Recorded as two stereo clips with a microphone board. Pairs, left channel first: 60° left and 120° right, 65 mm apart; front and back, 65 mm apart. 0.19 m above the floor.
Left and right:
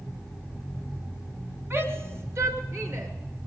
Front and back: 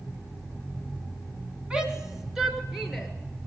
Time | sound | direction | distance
1.7 | a shout | 115° right | 1.5 m